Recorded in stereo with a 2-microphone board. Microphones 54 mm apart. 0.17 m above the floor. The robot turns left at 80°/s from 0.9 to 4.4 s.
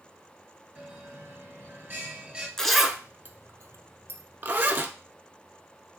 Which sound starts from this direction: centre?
A zipper, at 2.6 s.